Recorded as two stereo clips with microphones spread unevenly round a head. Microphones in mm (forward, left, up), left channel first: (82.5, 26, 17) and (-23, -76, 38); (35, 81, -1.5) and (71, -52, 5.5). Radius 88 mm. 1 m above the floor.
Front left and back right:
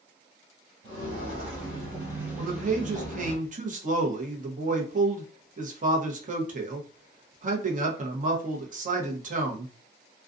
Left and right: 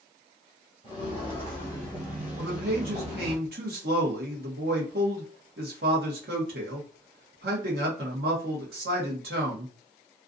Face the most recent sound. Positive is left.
turn(degrees=-100)